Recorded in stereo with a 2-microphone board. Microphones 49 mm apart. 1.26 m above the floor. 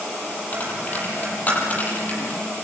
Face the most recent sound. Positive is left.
turn(degrees=35)  # may be behind; listen again after turning